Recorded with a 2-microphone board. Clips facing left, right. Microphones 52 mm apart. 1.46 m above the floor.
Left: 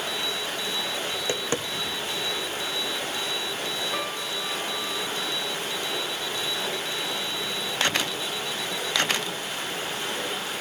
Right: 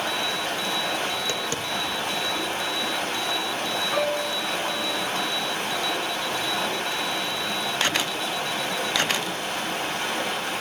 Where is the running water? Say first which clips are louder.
Right 3 dB; 60° right (ahead or behind), 6.5 m.